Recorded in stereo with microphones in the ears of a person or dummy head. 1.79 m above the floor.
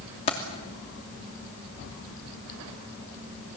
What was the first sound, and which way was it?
Keys jangling, 30° left (ahead or behind).